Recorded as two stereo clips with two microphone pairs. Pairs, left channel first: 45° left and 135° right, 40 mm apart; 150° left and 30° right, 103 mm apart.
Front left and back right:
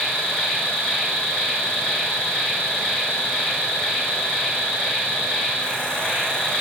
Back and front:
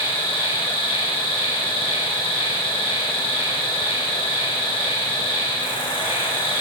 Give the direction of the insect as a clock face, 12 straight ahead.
8 o'clock.